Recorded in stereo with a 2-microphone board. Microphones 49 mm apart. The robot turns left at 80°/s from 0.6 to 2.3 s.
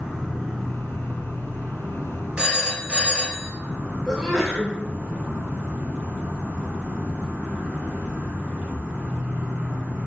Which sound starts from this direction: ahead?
An insect, at 0.0 s.